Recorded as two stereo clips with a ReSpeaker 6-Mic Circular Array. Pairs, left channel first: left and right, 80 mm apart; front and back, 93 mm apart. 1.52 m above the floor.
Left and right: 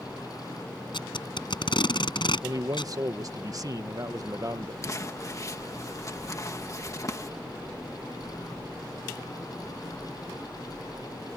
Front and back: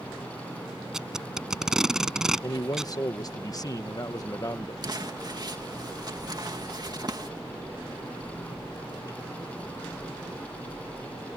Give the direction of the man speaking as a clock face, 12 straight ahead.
2 o'clock.